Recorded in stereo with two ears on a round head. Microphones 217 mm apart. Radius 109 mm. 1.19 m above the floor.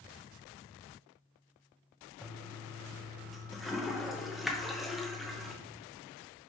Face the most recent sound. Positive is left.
turn(degrees=0)  # may be behind; listen again after turning